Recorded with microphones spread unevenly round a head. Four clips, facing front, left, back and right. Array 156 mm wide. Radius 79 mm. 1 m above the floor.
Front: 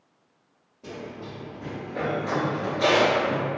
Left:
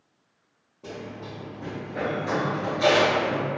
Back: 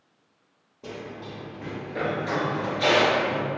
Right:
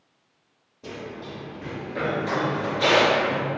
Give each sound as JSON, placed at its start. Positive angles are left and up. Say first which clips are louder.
{"t": 0.8, "sound": "running footsteps", "louder": "right 1 dB, even", "azimuth_deg": 175, "distance_m": 1.5}